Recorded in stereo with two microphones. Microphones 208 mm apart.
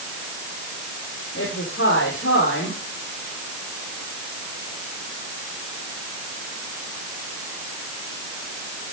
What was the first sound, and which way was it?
A woman speaking, 80° left.